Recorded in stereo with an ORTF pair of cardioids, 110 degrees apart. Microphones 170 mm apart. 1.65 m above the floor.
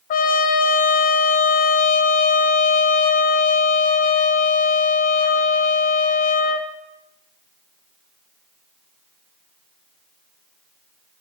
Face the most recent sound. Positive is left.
turn(degrees=55)